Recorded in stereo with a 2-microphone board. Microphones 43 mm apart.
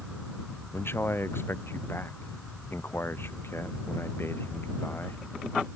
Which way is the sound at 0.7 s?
65° left (ahead or behind).